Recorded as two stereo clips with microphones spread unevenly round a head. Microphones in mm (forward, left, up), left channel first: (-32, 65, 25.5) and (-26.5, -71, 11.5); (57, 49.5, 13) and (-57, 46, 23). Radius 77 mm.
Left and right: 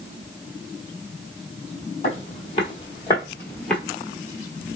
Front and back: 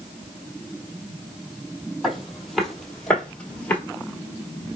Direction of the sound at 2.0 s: 100° left.